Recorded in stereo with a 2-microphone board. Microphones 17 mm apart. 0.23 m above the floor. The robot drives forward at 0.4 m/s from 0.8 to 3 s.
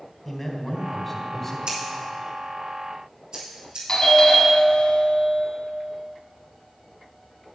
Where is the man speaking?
5° left (ahead or behind), 1.7 m; by 1.6 s 10° left (ahead or behind), 1.5 m.